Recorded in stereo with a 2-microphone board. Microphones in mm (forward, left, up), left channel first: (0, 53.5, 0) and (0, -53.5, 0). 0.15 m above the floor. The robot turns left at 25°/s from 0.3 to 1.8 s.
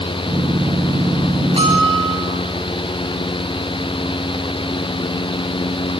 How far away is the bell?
About 10 m.